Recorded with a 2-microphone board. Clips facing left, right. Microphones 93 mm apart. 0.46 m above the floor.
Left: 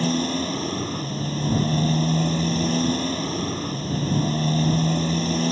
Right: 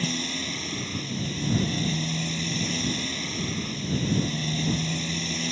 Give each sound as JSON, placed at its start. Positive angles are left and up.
{"t": 0.0, "sound": "a motorcycle", "side_deg": 40}